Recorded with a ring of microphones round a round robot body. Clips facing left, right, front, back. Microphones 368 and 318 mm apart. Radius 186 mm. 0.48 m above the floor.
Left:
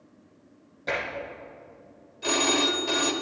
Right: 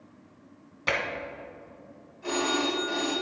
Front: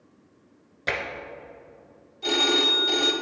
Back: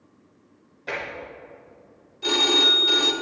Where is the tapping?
45° right, 1.5 m.